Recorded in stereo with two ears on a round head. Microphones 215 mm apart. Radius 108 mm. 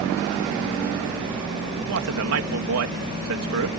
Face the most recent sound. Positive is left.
turn(degrees=-65)  # may be behind; listen again after turning